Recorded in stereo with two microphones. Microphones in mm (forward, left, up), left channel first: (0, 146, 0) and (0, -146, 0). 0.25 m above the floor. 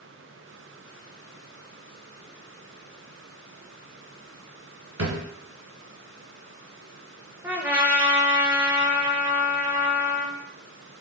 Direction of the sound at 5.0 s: 75° right (ahead or behind).